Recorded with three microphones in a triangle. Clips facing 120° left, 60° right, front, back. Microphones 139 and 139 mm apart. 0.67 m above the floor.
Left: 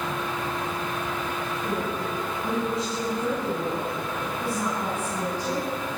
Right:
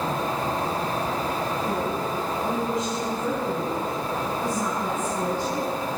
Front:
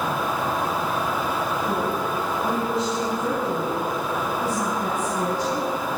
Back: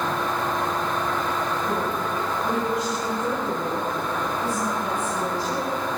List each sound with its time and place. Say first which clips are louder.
1.6 s a woman speaking: right 2 dB, front 1 dB; 70° left, 5.5 m; by 5.7 s 45° left, 5.5 m